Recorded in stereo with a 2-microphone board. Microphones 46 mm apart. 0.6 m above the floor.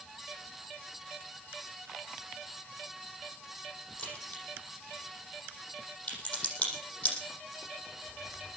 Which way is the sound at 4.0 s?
20° left (ahead or behind).